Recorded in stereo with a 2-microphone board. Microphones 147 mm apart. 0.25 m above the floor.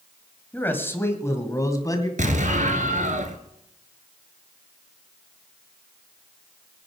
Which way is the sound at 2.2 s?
60° right (ahead or behind).